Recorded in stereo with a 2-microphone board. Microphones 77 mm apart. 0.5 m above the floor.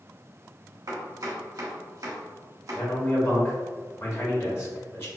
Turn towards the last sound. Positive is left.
turn(degrees=35)  # may be behind; listen again after turning